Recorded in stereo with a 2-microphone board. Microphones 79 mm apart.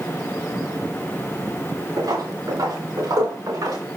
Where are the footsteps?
65° right (ahead or behind), 6.5 m; by 3.8 s 55° right (ahead or behind), 5.5 m.